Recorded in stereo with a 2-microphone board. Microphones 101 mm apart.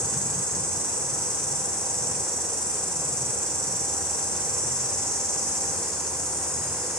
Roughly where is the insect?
Centre.